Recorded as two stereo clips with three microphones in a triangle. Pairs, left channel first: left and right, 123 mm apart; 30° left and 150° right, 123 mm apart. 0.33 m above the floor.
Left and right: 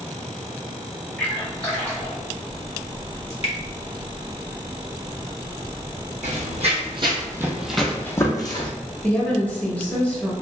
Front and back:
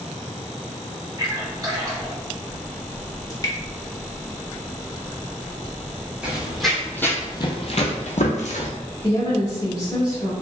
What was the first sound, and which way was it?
A splash, 170° left.